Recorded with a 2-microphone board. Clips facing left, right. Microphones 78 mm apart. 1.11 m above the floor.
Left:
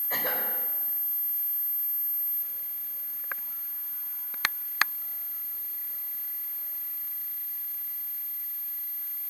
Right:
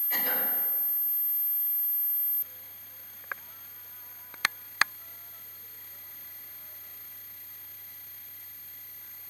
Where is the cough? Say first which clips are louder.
Left 2 dB; 40° left (ahead or behind), 4.5 m.